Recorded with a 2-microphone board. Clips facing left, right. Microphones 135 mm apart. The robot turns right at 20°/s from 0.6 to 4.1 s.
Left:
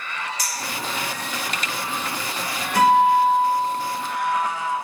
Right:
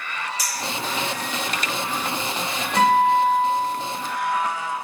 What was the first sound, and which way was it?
A clink, 35° right (ahead or behind).